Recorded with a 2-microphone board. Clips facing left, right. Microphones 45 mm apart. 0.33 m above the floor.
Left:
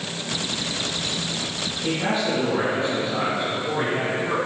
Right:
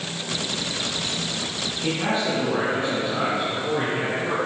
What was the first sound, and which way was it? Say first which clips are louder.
A man speaking: even; 35° right (ahead or behind).